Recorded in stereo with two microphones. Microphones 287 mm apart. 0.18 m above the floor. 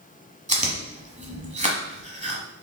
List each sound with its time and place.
0.5 s chewing: 25° right (ahead or behind), 1.1 m